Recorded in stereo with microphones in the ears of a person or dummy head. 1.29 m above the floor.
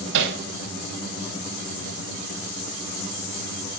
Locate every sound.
0.1 s hammering: 65° right (ahead or behind), 4.5 m